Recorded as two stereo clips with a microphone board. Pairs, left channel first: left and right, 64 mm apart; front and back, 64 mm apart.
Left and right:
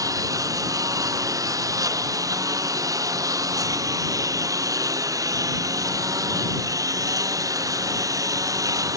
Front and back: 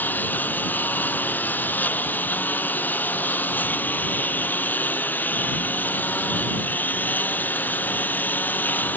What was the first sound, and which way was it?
A lawn mower, 60° right.